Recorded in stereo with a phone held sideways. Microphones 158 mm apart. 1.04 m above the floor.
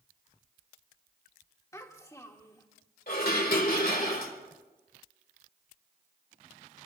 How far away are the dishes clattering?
About 2.5 m.